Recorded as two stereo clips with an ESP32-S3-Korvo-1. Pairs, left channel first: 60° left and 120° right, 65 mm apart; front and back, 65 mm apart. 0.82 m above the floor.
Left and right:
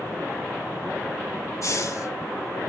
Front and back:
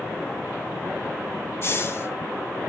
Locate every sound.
1.6 s a hiss: 40° left, 1.2 m